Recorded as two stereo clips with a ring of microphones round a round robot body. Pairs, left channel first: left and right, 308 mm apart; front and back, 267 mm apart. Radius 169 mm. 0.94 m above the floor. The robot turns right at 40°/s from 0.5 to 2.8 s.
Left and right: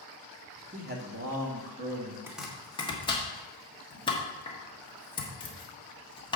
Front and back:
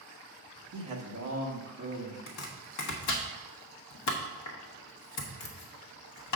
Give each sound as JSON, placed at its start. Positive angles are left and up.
{"t": 0.7, "sound": "a man speaking", "azimuth_deg": -160, "distance_m": 1.4}
{"t": 2.3, "sound": "chopping", "azimuth_deg": -5, "distance_m": 1.3}